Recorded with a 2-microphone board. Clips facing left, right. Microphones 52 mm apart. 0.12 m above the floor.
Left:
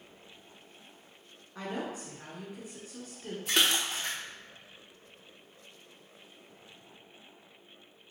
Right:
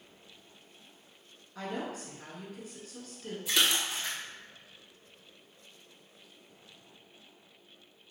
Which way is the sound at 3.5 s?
50° left (ahead or behind).